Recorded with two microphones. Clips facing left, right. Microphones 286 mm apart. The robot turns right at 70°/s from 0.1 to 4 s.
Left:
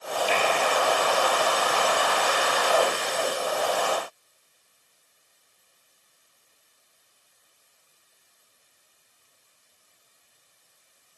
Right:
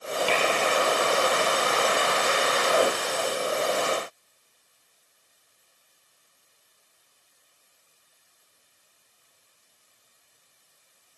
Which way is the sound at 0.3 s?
75° right (ahead or behind).